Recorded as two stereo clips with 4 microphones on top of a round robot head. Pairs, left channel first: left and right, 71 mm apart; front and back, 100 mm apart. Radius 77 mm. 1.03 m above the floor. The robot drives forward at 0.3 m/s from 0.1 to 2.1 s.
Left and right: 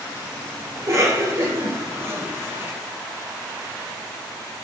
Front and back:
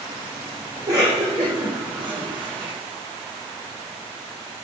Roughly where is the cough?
Behind right.